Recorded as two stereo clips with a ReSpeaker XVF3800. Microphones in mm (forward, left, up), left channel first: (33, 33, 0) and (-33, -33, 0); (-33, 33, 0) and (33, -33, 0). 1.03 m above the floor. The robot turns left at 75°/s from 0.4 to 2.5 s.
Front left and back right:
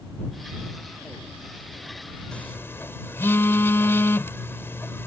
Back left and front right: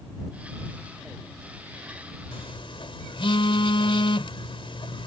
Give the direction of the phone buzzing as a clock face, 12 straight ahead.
8 o'clock.